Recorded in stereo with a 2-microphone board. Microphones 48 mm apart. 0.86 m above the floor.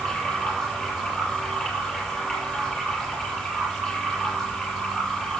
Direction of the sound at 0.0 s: 5° left (ahead or behind).